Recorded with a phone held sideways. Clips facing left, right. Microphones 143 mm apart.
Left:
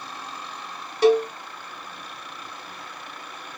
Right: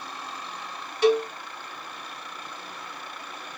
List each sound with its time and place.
1.0 s a cowbell: 35° left (ahead or behind), 1.8 m